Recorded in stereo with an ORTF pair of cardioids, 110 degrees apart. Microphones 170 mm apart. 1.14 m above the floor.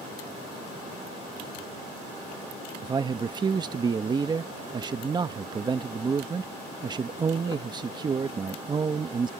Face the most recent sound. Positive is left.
turn(degrees=-25)